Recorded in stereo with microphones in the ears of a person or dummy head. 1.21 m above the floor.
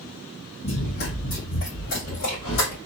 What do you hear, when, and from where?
0.6 s running footsteps: 55° left (ahead or behind), 2 m; by 2.8 s 40° left (ahead or behind), 3 m